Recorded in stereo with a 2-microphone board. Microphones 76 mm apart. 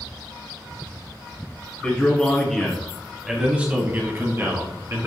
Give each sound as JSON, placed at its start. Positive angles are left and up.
{"t": 1.8, "sound": "a man speaking", "side_deg": 20, "distance_m": 1.3}